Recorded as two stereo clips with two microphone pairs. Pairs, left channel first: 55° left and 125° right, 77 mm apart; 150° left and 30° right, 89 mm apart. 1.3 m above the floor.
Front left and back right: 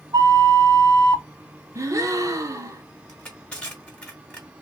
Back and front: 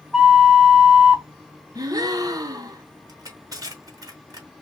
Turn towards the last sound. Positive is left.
turn(degrees=-15)